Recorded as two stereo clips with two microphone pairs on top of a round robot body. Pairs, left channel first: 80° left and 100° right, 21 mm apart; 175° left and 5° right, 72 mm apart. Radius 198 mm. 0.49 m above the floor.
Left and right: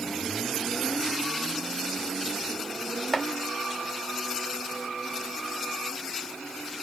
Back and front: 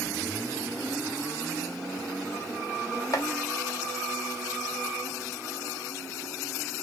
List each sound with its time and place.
3.1 s chopping: 145° left, 1.2 m